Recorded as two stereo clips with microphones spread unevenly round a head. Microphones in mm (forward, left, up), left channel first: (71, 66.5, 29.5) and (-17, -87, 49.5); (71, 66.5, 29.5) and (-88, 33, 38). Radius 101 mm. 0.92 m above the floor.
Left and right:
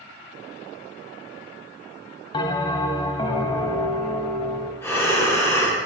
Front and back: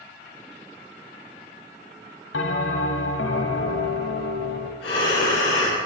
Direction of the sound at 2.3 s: 5° right.